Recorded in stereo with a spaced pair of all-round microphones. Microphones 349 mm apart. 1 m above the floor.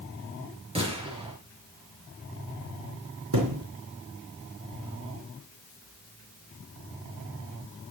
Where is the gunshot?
15° right (ahead or behind), 5.5 m.